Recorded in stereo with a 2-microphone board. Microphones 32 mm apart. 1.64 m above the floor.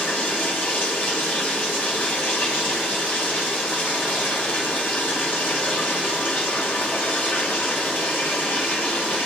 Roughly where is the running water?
Left.